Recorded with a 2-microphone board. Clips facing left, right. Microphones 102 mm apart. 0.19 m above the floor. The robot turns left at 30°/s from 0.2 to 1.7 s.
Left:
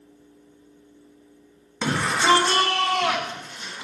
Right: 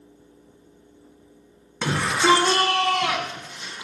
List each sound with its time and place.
1.8 s a shout: centre (ahead or behind), 1.3 m